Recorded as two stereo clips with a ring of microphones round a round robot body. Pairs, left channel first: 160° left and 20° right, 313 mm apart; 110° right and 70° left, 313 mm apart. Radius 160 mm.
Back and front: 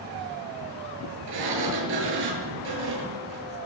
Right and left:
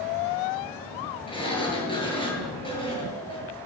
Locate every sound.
1.3 s a sliding door: 40° right, 8 m